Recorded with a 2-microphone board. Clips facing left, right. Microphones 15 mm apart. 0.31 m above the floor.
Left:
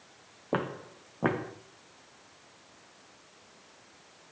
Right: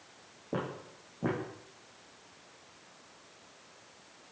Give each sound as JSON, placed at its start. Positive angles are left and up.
{"t": 0.5, "sound": "footsteps", "side_deg": 50, "distance_m": 1.4}